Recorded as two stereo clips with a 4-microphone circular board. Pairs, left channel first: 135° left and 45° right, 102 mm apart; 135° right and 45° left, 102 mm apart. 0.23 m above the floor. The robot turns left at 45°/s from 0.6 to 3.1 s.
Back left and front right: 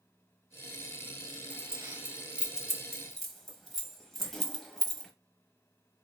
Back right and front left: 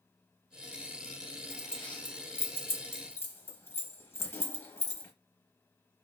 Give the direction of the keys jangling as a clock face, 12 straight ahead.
2 o'clock.